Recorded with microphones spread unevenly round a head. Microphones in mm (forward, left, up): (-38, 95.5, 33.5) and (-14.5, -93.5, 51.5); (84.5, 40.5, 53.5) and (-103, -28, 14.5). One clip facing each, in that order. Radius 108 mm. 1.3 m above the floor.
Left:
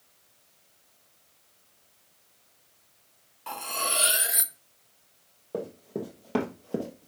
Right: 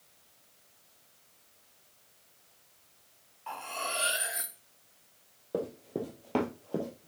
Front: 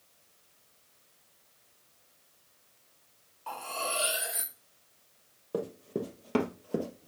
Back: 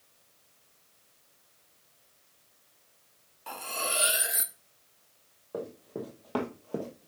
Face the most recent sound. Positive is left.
turn(degrees=65)